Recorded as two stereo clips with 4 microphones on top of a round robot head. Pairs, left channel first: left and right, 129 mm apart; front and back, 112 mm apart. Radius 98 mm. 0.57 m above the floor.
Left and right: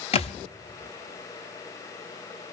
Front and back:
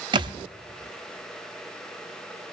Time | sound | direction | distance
0.1 | a thud | 130° left | 1.0 m